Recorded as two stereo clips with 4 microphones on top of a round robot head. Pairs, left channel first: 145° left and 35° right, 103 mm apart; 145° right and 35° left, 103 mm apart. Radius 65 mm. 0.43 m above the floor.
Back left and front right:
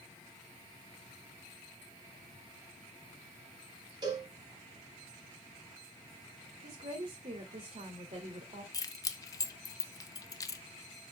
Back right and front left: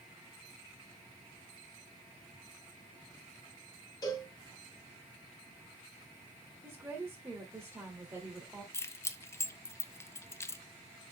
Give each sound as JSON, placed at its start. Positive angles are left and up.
{"t": 4.0, "sound": "a cowbell", "azimuth_deg": -90, "distance_m": 2.5}
{"t": 6.6, "sound": "a woman speaking", "azimuth_deg": -30, "distance_m": 1.9}
{"t": 8.7, "sound": "keys jangling", "azimuth_deg": 170, "distance_m": 0.7}